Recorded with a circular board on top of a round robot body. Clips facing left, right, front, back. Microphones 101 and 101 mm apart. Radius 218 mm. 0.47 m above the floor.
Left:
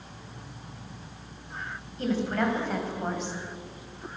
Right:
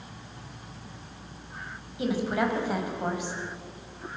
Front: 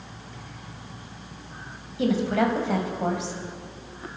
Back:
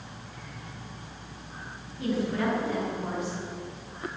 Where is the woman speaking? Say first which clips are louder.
Even, front 5 dB; 10° right, 5 m.